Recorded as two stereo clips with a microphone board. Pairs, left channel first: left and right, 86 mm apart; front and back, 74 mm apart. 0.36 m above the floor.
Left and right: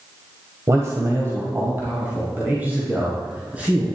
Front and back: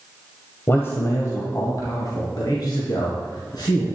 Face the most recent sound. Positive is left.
turn(degrees=-15)